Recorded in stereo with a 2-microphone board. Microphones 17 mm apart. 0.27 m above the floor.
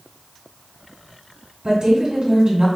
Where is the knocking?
No knocking in this recording.